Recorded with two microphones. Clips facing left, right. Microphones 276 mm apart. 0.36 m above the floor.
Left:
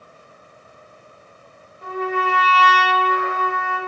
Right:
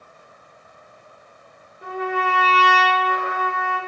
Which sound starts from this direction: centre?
A trumpet, at 1.8 s.